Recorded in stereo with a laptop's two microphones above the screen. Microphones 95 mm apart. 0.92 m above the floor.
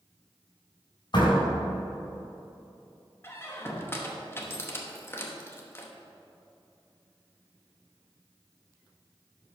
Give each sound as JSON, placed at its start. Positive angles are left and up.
{"t": 1.1, "sound": "a door slam", "side_deg": 50, "distance_m": 3.5}
{"t": 3.2, "sound": "a squeak", "side_deg": 25, "distance_m": 0.9}